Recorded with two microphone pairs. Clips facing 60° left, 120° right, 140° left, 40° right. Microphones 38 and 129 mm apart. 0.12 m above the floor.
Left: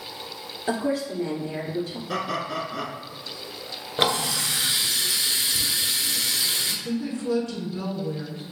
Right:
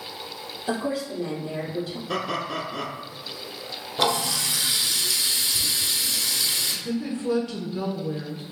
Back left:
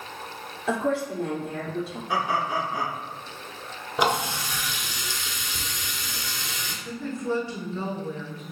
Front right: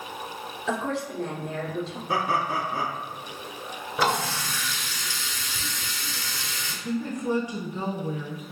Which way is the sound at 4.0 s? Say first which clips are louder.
Even, back left 1 dB; 80° left.